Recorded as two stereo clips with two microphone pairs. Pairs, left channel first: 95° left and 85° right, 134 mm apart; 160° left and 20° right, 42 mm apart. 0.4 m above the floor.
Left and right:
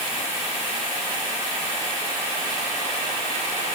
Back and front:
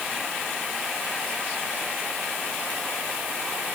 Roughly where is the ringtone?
I don't hear a ringtone.